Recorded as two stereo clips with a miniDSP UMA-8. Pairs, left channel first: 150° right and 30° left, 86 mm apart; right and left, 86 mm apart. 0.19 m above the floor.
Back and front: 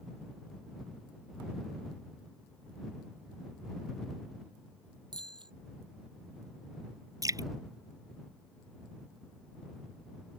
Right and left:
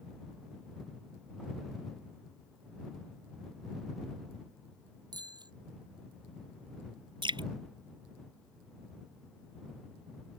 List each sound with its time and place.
5.1 s a bicycle bell: 55° left
7.2 s dripping: 75° left